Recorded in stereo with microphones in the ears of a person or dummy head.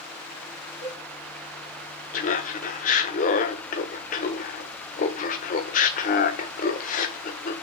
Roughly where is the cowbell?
Left.